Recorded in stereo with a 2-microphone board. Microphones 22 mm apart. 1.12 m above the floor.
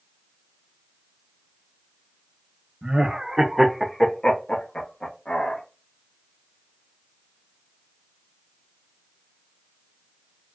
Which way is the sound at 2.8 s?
45° right (ahead or behind).